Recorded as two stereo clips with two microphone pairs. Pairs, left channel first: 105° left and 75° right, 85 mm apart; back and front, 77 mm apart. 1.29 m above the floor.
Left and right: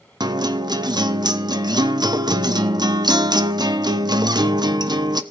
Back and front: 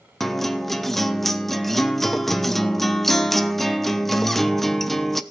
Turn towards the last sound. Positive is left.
turn(degrees=-95)